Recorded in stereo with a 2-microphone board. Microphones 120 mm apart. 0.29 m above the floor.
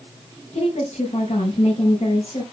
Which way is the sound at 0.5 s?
75° left (ahead or behind).